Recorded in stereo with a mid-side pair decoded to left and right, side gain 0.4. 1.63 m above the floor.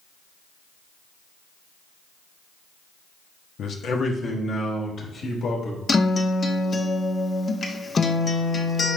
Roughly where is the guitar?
Ahead left.